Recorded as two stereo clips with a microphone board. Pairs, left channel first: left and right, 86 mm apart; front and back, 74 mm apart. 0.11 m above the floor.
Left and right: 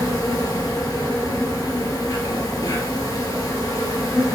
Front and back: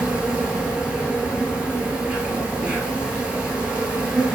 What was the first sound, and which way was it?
An insect, 110° left.